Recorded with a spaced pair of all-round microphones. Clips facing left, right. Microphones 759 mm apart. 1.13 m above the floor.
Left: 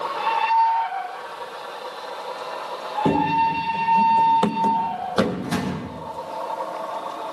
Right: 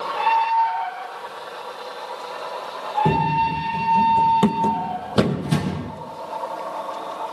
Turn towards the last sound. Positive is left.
turn(degrees=-60)  # may be behind; listen again after turning